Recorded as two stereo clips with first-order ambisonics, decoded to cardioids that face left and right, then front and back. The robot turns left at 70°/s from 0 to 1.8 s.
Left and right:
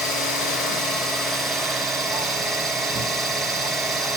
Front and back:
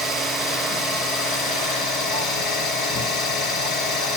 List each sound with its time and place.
0.0 s an engine running: 115° left, 2 m; by 4.2 s 10° right, 2 m